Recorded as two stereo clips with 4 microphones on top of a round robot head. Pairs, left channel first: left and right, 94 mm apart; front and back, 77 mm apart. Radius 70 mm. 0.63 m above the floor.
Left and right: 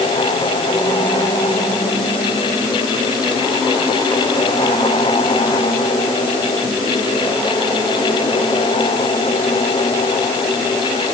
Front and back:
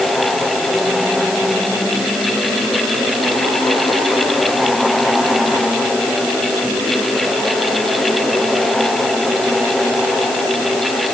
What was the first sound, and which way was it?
Only background noise.